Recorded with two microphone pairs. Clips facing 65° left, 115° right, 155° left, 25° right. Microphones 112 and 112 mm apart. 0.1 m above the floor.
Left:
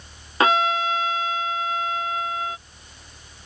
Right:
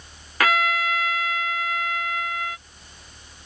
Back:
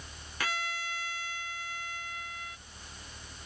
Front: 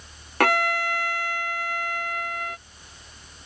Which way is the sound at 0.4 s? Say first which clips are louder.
Left 3 dB, front 15 dB; straight ahead.